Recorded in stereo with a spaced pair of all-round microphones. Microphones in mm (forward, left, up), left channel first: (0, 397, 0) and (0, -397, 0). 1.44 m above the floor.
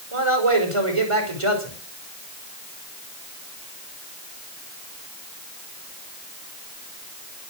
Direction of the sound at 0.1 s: 40° right (ahead or behind).